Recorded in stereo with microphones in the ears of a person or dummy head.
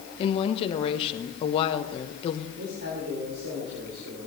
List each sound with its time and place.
0.2 s a woman speaking: 30° left (ahead or behind), 0.9 m
2.6 s a man speaking: 50° right (ahead or behind), 3.5 m